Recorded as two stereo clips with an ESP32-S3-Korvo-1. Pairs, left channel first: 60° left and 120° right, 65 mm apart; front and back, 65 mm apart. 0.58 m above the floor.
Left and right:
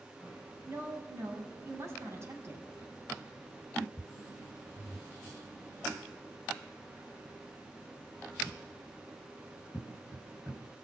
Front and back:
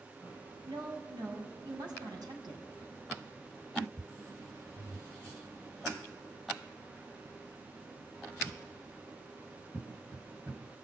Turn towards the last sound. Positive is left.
turn(degrees=-170)